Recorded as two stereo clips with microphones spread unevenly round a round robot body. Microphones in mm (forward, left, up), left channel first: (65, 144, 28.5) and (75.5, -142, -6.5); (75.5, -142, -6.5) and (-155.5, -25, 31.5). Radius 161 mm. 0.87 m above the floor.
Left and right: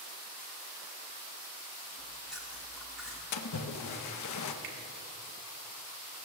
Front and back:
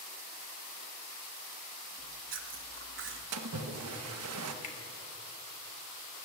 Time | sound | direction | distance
2.0 | chewing | 170° right | 1.3 m
3.3 | a splash | 120° left | 0.8 m
4.6 | a finger snap | 90° right | 3 m